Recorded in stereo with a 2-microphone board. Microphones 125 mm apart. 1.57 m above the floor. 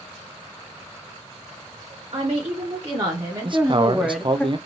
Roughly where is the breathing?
I don't hear breathing.